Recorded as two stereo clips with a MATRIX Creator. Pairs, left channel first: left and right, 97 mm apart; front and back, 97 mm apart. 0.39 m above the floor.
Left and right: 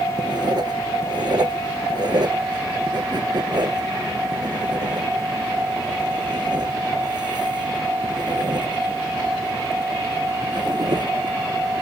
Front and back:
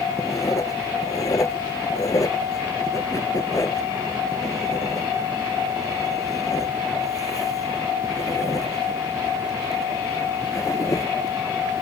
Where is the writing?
50° right.